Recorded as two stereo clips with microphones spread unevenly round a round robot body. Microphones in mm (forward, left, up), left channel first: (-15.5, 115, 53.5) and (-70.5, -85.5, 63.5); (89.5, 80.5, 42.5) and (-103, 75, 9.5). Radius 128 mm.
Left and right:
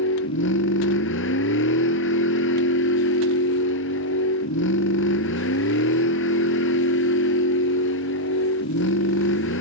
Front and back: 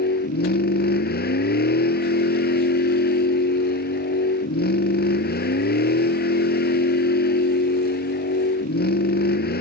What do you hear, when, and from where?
0.0 s a vehicle: 35° left